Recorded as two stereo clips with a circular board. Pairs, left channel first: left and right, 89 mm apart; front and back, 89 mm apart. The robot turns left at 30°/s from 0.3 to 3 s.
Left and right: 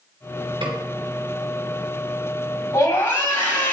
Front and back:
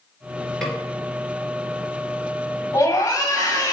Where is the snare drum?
85° right, 2.5 m; by 0.8 s 90° right, 2.5 m.